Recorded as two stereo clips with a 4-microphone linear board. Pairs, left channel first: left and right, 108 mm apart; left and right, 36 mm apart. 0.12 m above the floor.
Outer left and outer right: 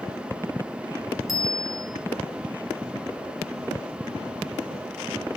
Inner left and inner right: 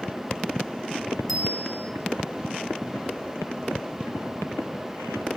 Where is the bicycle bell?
Centre (ahead or behind), 5 m.